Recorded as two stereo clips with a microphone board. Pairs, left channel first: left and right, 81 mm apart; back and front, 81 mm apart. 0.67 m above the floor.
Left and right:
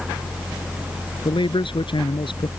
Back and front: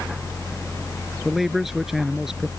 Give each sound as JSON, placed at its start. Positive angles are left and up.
{"t": 1.2, "sound": "a man speaking", "azimuth_deg": 85}